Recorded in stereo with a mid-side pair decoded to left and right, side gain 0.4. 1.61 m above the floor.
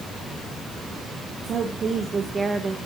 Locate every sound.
1.4 s a woman speaking: 60° right, 1.7 m; by 2.8 s 35° right, 2 m